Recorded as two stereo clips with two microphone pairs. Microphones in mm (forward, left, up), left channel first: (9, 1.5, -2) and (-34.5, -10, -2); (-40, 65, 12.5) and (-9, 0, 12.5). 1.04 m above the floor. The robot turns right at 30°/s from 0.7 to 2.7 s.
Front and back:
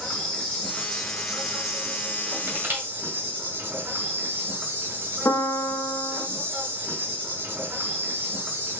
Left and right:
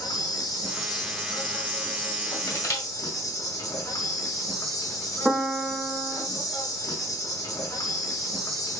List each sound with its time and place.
0.0 s an insect: 90° left, 1.4 m; by 8.8 s 150° left, 1.4 m
2.5 s crushing: 150° left, 1.9 m; by 2.8 s 155° left, 1.9 m
5.2 s a piano: 20° left, 0.8 m